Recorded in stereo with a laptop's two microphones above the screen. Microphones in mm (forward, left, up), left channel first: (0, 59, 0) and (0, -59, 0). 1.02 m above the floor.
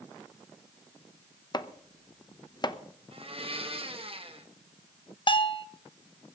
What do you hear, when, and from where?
1.5 s chopping: 35° left (ahead or behind), 0.7 m
3.1 s a blender: 50° right (ahead or behind), 1.2 m
5.3 s a bell: 40° left (ahead or behind), 0.9 m